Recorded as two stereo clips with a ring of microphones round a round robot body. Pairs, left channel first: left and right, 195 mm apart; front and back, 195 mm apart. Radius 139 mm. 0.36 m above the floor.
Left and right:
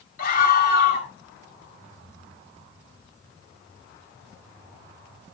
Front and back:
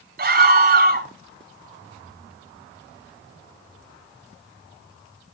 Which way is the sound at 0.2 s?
145° left.